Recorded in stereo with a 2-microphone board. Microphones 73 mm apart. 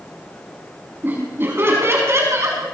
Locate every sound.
1.0 s laughter: 30° right (ahead or behind), 5.5 m; by 2.6 s 40° right (ahead or behind), 5.5 m